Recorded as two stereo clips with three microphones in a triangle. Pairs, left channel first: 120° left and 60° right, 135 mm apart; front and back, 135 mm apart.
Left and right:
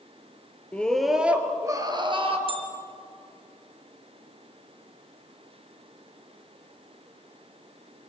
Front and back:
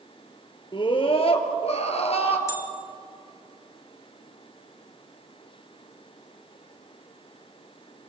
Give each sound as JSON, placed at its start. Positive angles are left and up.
{"t": 0.7, "sound": "a scream", "azimuth_deg": 40, "distance_m": 2.0}
{"t": 2.5, "sound": "a bell", "azimuth_deg": -60, "distance_m": 1.7}